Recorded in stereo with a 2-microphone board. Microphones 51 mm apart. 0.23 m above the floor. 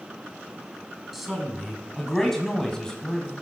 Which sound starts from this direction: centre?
A man speaking, at 1.1 s.